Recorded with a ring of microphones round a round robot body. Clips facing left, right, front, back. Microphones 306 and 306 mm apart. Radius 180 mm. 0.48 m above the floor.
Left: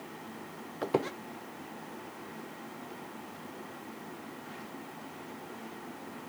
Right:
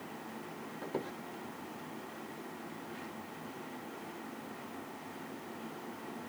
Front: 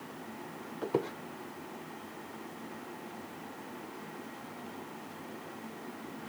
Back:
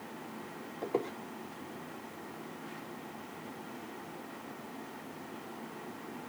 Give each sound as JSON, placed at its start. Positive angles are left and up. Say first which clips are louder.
{"t": 0.8, "sound": "a squeak", "louder": "left 9 dB, front 2 dB", "azimuth_deg": 70, "distance_m": 0.6}